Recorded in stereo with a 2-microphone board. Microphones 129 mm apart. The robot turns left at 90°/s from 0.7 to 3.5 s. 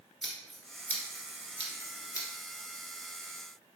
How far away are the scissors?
About 1.7 m.